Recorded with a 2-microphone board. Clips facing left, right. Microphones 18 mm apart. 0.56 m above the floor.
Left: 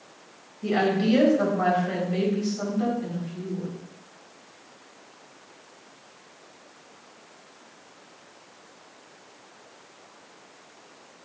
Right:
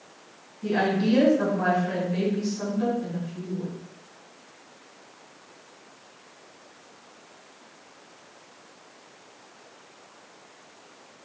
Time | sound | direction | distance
0.6 | a woman speaking | 60° left (ahead or behind) | 3.5 m